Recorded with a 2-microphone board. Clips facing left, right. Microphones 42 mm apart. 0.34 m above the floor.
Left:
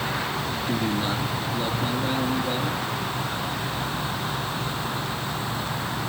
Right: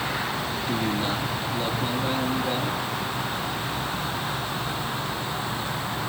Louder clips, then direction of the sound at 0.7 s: Even; 10° left (ahead or behind).